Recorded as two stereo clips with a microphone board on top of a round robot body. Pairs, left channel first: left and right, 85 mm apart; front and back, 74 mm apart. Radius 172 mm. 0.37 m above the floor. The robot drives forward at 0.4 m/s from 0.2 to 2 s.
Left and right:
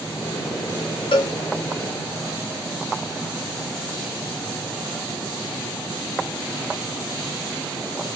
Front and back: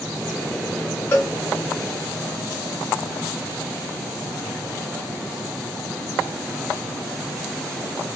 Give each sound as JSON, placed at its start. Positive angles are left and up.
{"t": 1.1, "sound": "a cowbell", "azimuth_deg": 60, "distance_m": 1.3}